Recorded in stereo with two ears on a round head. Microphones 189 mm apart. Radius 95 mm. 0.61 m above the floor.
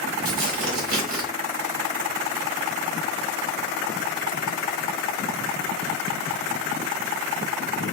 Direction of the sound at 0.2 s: 65° right (ahead or behind).